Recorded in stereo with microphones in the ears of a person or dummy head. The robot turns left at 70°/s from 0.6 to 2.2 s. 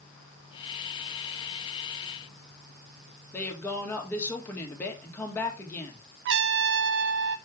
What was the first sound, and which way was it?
A woman speaking, 15° left (ahead or behind).